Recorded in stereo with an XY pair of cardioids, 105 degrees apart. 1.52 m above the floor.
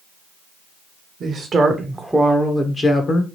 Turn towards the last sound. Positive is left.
turn(degrees=45)